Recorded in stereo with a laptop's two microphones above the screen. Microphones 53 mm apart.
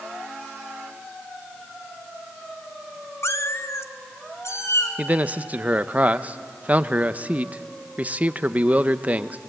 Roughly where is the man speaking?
Right.